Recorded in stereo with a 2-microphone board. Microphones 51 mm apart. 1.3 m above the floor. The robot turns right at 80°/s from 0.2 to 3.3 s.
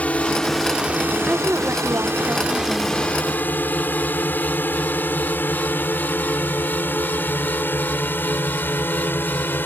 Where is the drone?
30° left (ahead or behind); by 9.7 s 45° left (ahead or behind).